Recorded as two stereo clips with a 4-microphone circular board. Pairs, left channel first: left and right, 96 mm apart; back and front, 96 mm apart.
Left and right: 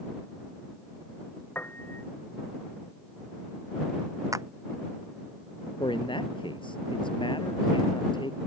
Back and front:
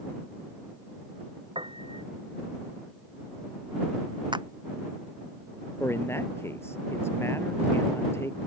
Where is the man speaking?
115° left.